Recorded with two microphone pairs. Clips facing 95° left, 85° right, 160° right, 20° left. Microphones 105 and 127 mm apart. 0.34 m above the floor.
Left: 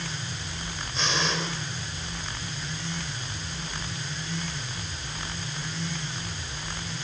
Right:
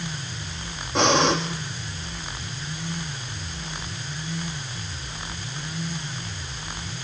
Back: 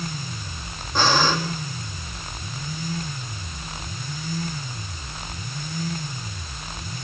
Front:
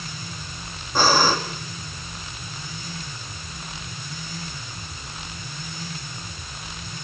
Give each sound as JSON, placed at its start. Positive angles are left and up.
{"t": 0.9, "sound": "breathing", "azimuth_deg": -60, "distance_m": 4.0}